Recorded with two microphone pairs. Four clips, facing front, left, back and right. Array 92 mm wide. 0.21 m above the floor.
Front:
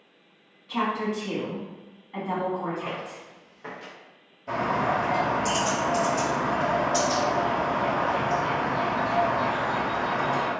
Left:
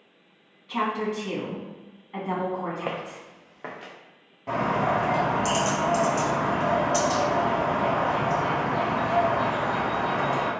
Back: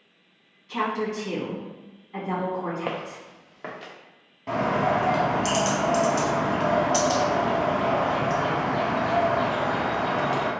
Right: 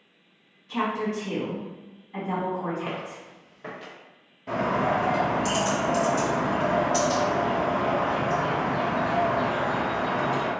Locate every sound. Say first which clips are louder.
0.7 s a woman speaking: even, even; 75° left, 1.8 m
2.9 s footsteps: left 2 dB, back 3 dB; 125° left, 0.9 m; by 3.9 s 120° left, 1.5 m
4.5 s a bird: even, back 2 dB; 140° left, 1.6 m